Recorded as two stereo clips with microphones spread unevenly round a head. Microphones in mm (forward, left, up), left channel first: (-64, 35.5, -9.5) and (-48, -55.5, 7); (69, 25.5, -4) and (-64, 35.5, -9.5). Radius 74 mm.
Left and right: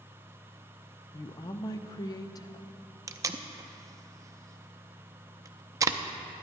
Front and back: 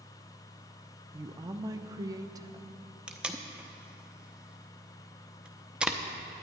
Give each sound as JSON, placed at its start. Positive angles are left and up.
{"t": 1.1, "sound": "a woman speaking", "azimuth_deg": 120, "distance_m": 0.7}
{"t": 3.1, "sound": "tape being pulled", "azimuth_deg": -100, "distance_m": 0.6}